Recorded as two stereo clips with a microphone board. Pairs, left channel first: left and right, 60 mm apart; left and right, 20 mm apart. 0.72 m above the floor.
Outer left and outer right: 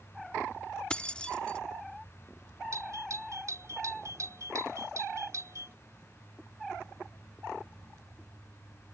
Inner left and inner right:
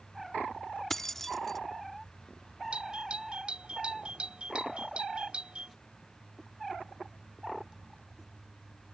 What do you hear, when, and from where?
0.9 s keys jangling: 15° left (ahead or behind)
2.7 s a doorbell: 60° right (ahead or behind)